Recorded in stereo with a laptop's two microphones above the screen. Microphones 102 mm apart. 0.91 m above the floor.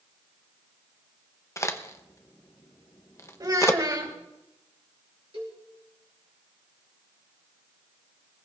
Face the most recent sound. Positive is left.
turn(degrees=-65)  # may be behind; listen again after turning